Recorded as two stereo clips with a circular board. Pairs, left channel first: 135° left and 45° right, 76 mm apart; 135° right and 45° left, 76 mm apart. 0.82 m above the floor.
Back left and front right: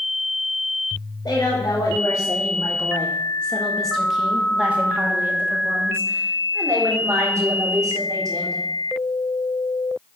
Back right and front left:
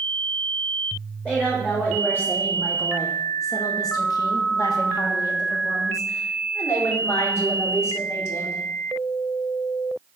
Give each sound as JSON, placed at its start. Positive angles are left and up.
{"t": 1.2, "sound": "a woman speaking", "azimuth_deg": 155, "distance_m": 1.5}